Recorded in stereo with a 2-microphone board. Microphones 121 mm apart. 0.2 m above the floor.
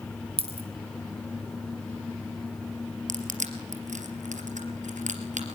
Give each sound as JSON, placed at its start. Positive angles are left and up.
{"t": 0.4, "sound": "a dropped coin", "side_deg": -50, "distance_m": 2.5}
{"t": 3.1, "sound": "crushing", "side_deg": -75, "distance_m": 3.5}